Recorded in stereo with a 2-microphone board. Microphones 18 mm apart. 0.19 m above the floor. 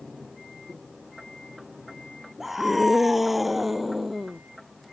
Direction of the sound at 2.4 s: 20° right (ahead or behind).